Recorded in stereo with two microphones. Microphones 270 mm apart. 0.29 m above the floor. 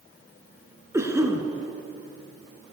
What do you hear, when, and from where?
0.9 s a cough: 10° right (ahead or behind), 4 m